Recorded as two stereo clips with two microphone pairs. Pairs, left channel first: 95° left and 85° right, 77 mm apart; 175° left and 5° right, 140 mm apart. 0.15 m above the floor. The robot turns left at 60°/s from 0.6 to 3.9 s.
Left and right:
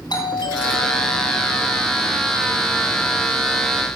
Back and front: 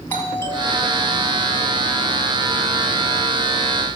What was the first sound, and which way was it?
A doorbell, 105° left.